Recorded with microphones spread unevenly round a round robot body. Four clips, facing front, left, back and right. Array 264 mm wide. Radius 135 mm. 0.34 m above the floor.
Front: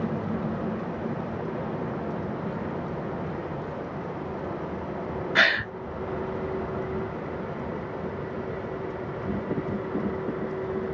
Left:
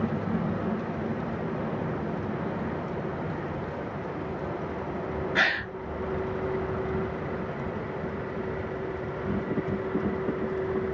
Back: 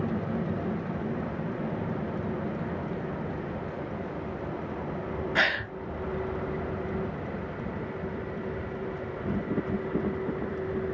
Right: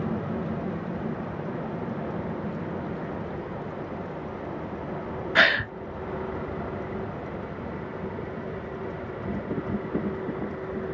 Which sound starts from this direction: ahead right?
A gasp, at 5.3 s.